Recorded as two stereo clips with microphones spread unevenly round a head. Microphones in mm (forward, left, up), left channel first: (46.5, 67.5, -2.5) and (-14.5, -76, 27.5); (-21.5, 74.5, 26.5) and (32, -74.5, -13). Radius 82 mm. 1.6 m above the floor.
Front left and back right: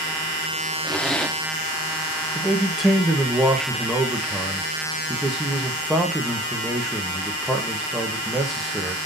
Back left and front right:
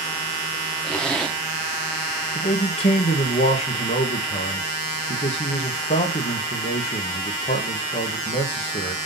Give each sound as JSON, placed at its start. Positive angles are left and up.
{"t": 0.8, "sound": "a zipper", "azimuth_deg": 165, "distance_m": 1.2}
{"t": 2.4, "sound": "a man speaking", "azimuth_deg": 160, "distance_m": 1.5}